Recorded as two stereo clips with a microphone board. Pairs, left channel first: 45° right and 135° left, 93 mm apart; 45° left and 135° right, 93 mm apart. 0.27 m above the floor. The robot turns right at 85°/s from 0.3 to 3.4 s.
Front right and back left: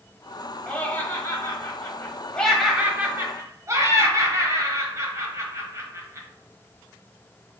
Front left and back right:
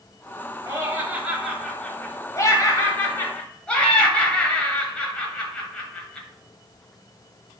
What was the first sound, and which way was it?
Laughter, 120° right.